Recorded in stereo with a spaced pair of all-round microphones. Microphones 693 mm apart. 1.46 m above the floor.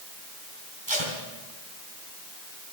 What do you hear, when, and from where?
0.9 s tape being pulled: 40° right (ahead or behind), 4 m